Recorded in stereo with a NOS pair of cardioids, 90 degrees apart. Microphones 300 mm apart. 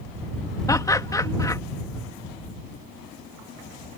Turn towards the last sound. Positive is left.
turn(degrees=10)